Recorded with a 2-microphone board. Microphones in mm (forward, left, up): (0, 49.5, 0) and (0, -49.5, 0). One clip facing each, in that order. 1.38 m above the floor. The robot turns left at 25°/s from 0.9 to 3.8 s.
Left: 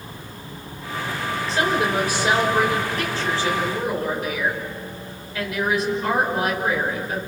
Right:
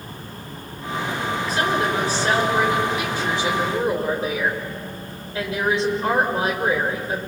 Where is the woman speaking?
30° left, 6 m; by 7.2 s 30° right, 6 m.